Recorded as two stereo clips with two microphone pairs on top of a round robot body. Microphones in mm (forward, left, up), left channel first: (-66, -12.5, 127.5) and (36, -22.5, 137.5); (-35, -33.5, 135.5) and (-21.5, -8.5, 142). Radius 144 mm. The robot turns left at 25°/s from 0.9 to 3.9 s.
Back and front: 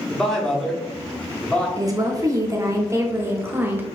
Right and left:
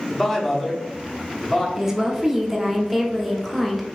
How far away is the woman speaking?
About 1.1 m.